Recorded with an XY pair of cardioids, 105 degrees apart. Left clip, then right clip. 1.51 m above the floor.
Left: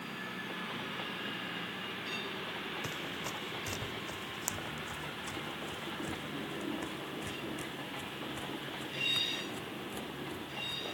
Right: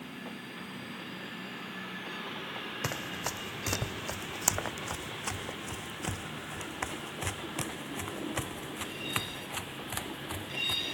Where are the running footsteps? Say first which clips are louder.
Right 3 dB; 55° right; by 10.9 s 75° right.